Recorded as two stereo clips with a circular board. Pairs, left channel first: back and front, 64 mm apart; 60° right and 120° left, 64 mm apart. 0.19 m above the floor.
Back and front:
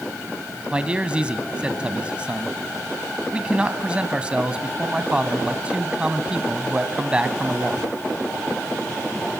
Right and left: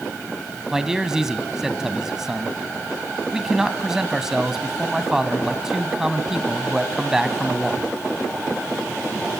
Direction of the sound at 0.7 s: 50° left.